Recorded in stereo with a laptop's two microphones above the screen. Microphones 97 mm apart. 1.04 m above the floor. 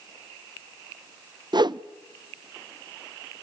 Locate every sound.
1.5 s a whoosh: 50° right (ahead or behind), 0.5 m